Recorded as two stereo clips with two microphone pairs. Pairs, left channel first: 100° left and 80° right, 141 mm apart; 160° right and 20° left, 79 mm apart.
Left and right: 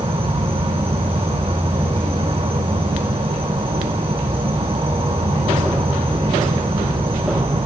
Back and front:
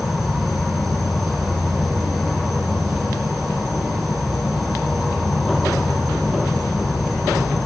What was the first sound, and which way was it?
An insect, 65° right.